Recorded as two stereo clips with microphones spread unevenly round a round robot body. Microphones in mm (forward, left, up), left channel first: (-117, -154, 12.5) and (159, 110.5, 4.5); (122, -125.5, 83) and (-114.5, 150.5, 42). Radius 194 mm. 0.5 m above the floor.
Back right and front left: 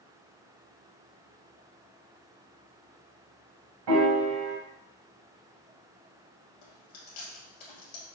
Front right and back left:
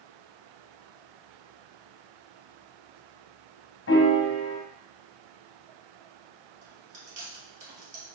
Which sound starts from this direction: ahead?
A piano, at 3.9 s.